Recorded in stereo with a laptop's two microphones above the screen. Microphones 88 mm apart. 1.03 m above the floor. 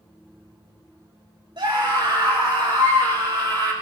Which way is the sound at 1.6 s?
60° right (ahead or behind).